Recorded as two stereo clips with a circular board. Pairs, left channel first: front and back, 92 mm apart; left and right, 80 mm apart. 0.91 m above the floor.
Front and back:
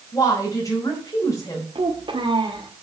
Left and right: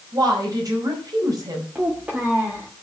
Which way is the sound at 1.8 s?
165° right.